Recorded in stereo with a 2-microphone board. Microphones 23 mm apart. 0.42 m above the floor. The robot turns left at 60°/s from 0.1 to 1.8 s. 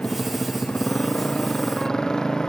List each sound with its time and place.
0.0 s a motorcycle: 135° left; by 2.5 s 30° left